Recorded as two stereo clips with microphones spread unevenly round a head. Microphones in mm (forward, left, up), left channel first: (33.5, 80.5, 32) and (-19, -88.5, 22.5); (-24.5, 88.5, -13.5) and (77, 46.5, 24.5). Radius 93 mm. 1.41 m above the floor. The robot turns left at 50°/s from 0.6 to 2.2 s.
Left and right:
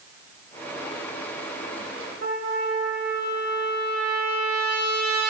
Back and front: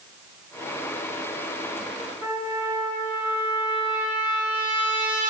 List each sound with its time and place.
2.2 s a trumpet: 60° right, 4 m